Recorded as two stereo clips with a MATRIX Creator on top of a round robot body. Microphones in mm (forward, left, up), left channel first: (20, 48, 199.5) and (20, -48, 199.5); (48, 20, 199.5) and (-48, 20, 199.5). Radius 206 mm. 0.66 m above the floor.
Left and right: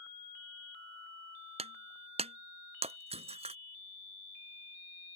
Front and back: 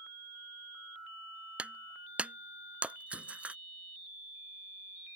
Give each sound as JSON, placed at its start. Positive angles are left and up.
{"t": 1.6, "sound": "breaking glass", "azimuth_deg": -105}